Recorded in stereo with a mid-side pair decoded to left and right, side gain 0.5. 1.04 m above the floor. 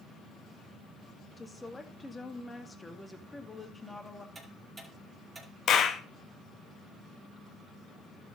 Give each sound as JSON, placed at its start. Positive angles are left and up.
{"t": 1.4, "sound": "a woman speaking", "azimuth_deg": 15, "distance_m": 2.0}
{"t": 4.3, "sound": "ticking", "azimuth_deg": -25, "distance_m": 5.5}
{"t": 5.7, "sound": "a clap", "azimuth_deg": 55, "distance_m": 1.5}